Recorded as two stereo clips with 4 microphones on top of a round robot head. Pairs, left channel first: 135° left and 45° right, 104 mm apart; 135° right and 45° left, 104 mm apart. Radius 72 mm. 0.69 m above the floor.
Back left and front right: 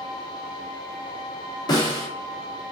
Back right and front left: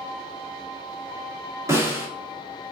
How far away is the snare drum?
About 1.7 m.